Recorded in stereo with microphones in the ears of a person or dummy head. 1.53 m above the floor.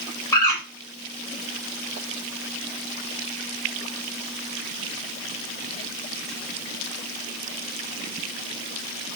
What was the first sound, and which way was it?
A bird, 15° left (ahead or behind).